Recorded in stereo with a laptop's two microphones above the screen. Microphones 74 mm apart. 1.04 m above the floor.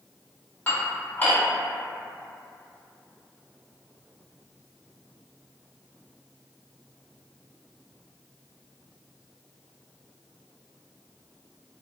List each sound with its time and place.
0.7 s dishes clattering: 25° left (ahead or behind), 1.2 m